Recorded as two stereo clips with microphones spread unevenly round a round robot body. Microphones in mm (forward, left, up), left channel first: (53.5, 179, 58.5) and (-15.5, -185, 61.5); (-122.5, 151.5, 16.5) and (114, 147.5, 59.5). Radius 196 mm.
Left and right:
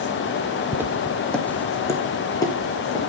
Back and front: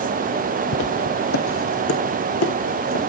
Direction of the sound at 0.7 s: Straight behind.